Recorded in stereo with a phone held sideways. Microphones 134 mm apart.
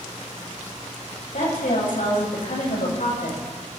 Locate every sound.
1.3 s a woman speaking: 80° left, 7.5 m; by 3.8 s 85° left, 6.5 m